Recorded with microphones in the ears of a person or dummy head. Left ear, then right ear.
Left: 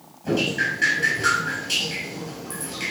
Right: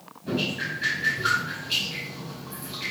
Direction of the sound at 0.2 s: 45° left (ahead or behind).